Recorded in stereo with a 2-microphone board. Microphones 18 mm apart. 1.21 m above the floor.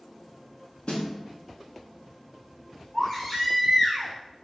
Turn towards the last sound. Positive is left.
turn(degrees=15)  # may be behind; listen again after turning